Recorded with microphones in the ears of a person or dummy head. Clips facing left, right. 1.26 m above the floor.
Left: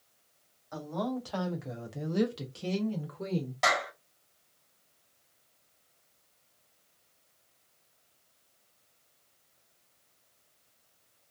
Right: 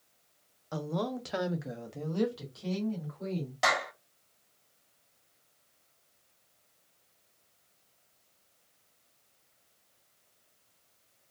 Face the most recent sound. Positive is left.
turn(degrees=0)  # may be behind; listen again after turning